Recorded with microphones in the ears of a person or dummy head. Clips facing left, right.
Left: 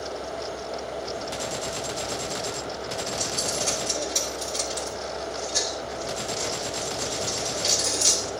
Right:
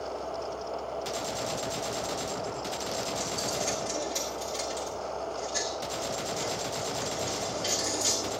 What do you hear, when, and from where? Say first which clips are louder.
3.2 s a dropped coin: left 2 dB; 5° right (ahead or behind), 2 m